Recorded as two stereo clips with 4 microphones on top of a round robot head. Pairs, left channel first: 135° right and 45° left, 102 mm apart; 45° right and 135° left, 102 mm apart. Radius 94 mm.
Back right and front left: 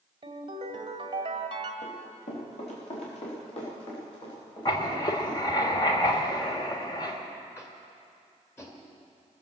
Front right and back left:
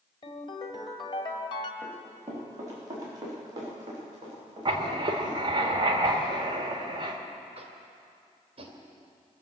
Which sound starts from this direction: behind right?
Running footsteps, at 1.8 s.